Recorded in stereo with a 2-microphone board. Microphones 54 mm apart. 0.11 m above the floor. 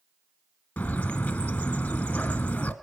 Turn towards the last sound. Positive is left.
turn(degrees=25)  # may be behind; listen again after turning